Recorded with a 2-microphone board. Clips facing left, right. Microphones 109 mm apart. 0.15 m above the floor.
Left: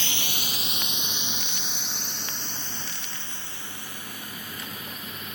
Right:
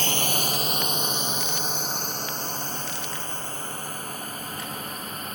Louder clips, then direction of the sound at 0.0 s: Right 8 dB; 45° right (ahead or behind).